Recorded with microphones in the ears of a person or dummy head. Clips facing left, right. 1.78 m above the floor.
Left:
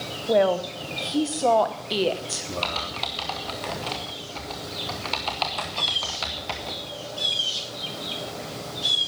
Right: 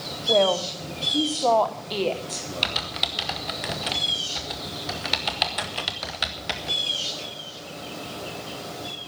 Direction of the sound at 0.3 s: 10° left (ahead or behind).